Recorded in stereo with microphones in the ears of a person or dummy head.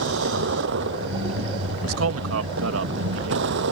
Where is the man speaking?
80° right.